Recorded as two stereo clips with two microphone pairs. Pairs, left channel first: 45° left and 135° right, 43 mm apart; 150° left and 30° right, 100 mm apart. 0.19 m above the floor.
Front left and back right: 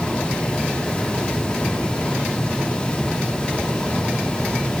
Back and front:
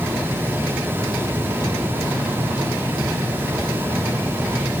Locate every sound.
Only background noise.